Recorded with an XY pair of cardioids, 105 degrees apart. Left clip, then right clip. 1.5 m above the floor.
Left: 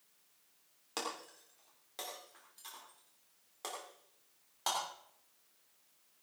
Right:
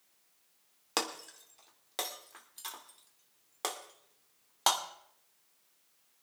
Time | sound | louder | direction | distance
1.0 | breaking glass | right 6 dB | 65° right | 2.5 m